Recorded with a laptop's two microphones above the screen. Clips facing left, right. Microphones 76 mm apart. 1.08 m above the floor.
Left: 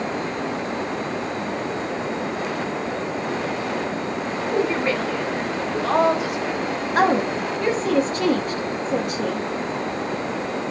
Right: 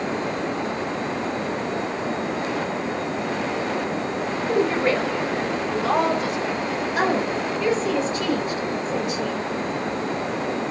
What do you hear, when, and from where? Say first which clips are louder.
4.5 s a woman speaking: right 1 dB; 45° right (ahead or behind), 1.4 m; by 6.6 s 20° left (ahead or behind), 1.0 m
7.0 s a woman speaking: left 4 dB; 45° left (ahead or behind), 0.5 m